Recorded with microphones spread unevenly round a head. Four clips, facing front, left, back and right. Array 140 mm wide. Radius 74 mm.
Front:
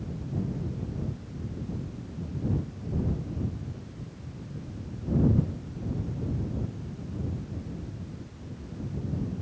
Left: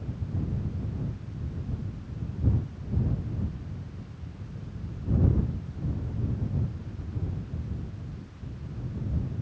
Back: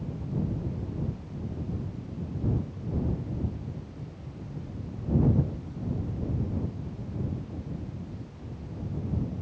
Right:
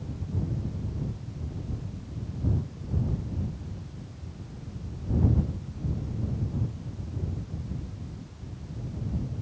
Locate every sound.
Only background noise.